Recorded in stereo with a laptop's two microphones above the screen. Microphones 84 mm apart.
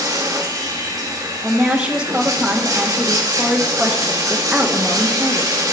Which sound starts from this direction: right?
Running water, at 0.0 s.